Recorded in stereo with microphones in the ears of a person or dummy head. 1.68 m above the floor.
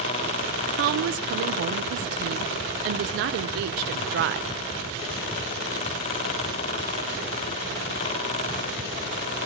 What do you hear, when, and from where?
0.7 s a woman speaking: 55° right (ahead or behind), 0.8 m